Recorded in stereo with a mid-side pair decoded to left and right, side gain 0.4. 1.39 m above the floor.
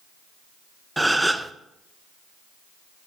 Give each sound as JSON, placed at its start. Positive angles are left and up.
{"t": 1.0, "sound": "a gasp", "azimuth_deg": -10, "distance_m": 0.9}